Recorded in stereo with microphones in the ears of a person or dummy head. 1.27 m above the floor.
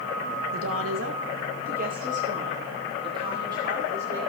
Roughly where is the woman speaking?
Right.